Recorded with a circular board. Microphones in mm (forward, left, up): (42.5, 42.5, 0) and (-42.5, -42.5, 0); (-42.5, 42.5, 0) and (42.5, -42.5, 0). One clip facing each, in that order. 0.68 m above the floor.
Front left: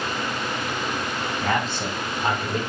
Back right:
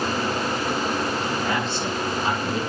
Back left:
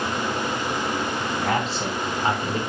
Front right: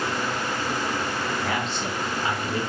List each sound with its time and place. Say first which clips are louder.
1.4 s a man speaking: even, back left 3 dB; 85° left, 5 m; by 2.6 s 80° left, 3 m